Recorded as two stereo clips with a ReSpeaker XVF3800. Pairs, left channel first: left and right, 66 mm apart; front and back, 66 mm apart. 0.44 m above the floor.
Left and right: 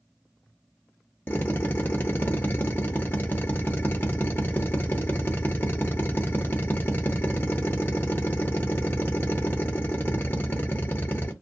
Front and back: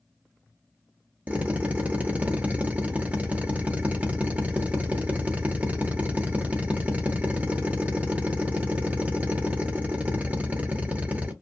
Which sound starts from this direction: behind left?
A drill, at 1.3 s.